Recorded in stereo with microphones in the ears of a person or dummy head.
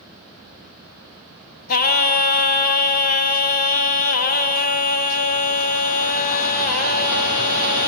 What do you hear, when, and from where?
1.7 s singing: 50° left (ahead or behind), 1.1 m